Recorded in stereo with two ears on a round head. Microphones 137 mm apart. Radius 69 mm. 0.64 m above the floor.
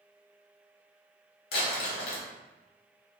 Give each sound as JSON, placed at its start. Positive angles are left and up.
{"t": 1.5, "sound": "crumpling", "side_deg": 70, "distance_m": 1.4}